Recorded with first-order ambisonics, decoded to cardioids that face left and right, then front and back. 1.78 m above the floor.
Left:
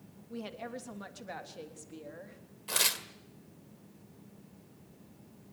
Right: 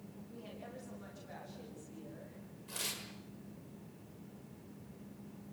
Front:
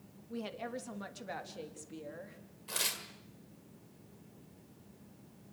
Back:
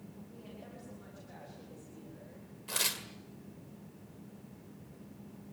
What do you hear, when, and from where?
0.3 s a woman speaking: 40° left, 3 m
2.7 s tearing paper: 105° left, 2.0 m